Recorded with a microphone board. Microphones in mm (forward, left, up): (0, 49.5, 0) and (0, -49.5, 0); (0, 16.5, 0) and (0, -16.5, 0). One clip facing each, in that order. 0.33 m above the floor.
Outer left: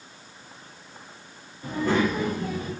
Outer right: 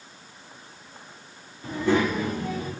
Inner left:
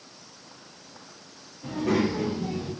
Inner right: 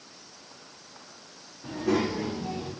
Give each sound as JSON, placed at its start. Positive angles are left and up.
{"t": 1.6, "sound": "a child speaking", "side_deg": 50, "distance_m": 1.0}